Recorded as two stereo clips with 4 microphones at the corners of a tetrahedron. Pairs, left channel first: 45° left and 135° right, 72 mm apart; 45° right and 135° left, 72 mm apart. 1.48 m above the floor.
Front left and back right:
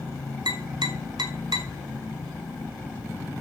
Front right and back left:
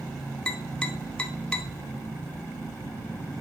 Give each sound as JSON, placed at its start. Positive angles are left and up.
{"t": 0.5, "sound": "tapping", "azimuth_deg": -120, "distance_m": 0.6}